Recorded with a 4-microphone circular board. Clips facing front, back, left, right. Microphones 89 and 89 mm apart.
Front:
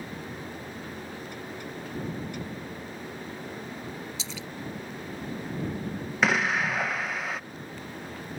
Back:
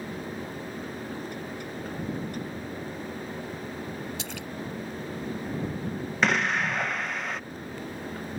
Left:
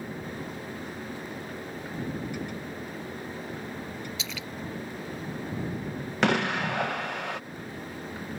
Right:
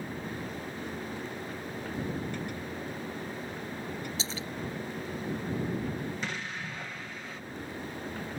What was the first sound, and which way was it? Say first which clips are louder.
A splash: back 2 dB, right 1 dB; 145° right.